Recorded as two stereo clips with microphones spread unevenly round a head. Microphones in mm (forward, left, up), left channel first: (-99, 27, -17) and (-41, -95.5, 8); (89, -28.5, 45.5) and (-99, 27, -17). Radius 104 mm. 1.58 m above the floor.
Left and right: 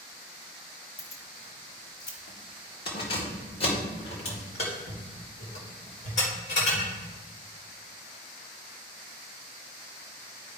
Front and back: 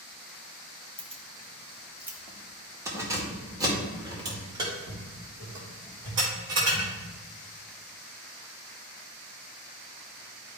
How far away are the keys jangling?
About 0.9 m.